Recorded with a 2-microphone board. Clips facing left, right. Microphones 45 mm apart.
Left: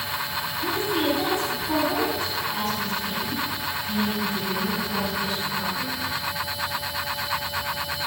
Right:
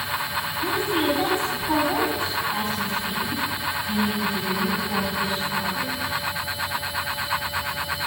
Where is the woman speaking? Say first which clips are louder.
Right 1 dB; 25° right (ahead or behind), 5 m.